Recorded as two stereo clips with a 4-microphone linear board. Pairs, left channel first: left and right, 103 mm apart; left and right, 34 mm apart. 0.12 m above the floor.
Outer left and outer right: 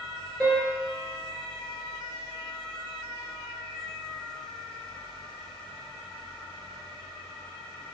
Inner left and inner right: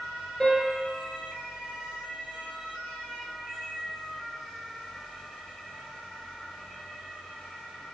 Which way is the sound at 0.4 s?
10° left (ahead or behind).